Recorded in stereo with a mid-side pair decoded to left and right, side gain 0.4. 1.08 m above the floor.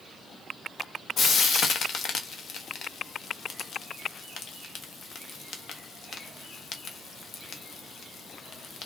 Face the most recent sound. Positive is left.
turn(degrees=65)